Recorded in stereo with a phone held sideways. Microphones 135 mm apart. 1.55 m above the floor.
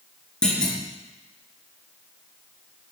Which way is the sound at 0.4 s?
10° left (ahead or behind).